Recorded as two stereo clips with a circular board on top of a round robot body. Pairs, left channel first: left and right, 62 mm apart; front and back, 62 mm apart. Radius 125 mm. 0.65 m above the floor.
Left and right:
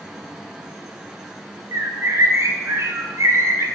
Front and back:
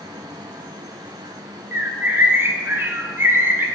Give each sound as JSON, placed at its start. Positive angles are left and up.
{"t": 1.7, "sound": "a bird", "azimuth_deg": -130, "distance_m": 1.4}